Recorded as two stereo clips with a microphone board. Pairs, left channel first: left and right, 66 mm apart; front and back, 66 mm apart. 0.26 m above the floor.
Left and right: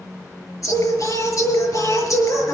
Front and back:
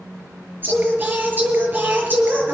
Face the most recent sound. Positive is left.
turn(degrees=120)